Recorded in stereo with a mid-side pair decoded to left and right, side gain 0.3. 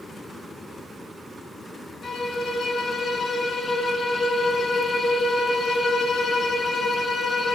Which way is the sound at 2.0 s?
65° left.